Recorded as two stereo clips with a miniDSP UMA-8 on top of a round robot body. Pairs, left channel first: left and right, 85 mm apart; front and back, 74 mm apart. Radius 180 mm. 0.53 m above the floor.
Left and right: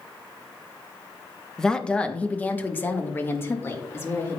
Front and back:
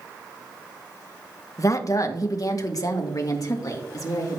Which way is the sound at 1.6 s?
10° left.